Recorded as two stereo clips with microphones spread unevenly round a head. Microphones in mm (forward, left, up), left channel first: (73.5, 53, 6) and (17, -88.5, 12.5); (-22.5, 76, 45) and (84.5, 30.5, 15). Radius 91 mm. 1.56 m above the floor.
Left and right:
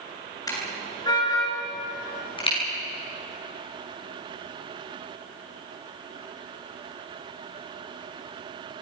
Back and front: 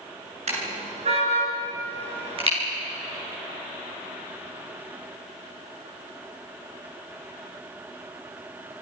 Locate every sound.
0.5 s a car horn: straight ahead, 10 m; by 2.6 s 15° left, 11.5 m